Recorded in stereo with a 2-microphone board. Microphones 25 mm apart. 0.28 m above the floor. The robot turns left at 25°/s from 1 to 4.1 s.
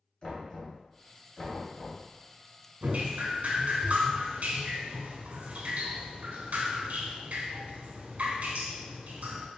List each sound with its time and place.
0.2 s knocking: 30° left (ahead or behind), 1.9 m; by 2.7 s 65° left (ahead or behind), 1.9 m
2.8 s dripping: 60° right, 0.7 m; by 9.5 s 90° right, 0.7 m